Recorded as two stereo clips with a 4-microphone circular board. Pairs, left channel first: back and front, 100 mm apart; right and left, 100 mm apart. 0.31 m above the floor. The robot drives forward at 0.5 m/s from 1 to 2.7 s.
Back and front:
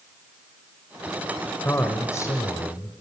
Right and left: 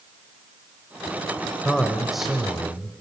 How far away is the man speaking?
About 1.5 m.